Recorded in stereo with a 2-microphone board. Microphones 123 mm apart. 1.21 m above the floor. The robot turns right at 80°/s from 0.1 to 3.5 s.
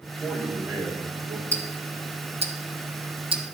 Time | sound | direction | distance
0.2 | a man speaking | 150° left | 2.5 m
1.5 | ticking | 15° left (ahead or behind) | 0.9 m